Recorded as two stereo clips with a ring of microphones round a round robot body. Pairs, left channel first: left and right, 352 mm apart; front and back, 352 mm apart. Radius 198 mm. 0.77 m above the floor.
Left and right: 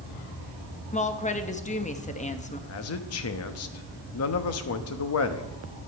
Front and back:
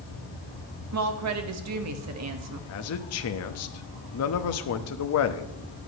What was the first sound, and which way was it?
A woman speaking, 155° left.